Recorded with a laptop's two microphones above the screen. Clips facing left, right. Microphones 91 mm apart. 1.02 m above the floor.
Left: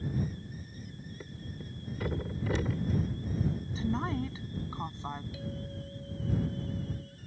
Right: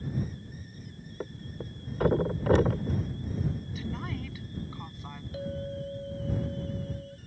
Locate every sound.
1.2 s a thud: 55° right (ahead or behind)
3.8 s a woman speaking: 30° left (ahead or behind)
5.3 s a clink: 45° right (ahead or behind)